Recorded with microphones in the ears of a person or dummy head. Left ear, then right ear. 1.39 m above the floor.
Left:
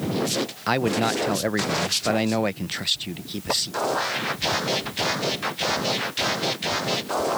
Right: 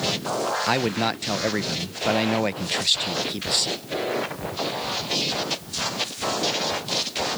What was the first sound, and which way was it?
A man speaking, 5° right (ahead or behind).